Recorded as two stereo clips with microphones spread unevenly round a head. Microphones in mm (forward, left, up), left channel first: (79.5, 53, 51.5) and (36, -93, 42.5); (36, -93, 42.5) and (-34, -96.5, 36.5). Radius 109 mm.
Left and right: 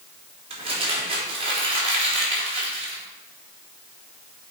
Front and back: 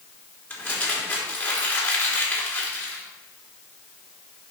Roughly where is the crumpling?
Ahead right.